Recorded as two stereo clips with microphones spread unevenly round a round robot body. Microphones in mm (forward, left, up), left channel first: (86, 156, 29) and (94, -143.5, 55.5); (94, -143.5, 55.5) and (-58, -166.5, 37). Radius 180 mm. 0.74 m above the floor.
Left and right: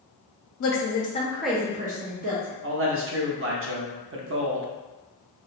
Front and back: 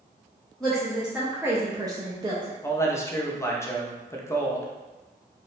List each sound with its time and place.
0.6 s a woman speaking: 100° left, 0.6 m; by 2.6 s 115° right, 0.7 m
2.6 s a man speaking: 65° right, 0.6 m